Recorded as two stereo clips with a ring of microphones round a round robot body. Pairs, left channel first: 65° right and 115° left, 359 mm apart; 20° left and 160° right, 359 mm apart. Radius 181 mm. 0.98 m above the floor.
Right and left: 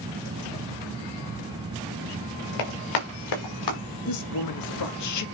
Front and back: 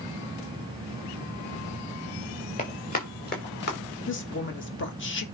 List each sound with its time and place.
2.6 s running footsteps: 50° right, 5 m; by 3.8 s 40° right, 5.5 m
4.1 s a woman speaking: 30° right, 1.6 m